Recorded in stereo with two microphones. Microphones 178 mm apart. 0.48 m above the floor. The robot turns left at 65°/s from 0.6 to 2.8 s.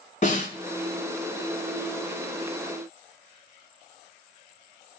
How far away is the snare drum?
About 3 m.